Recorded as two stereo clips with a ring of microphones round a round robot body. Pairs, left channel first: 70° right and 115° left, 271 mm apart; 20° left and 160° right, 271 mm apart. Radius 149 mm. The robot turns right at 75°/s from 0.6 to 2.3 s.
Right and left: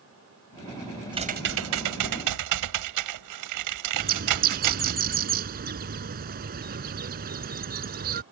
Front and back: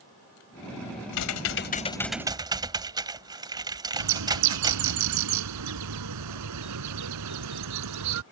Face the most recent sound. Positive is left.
turn(degrees=170)